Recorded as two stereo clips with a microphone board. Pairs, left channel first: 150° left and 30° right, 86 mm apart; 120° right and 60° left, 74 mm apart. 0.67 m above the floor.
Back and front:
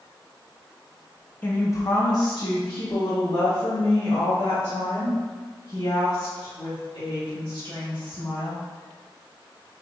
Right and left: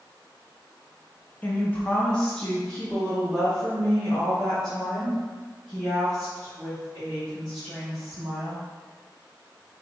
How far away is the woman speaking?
About 0.5 m.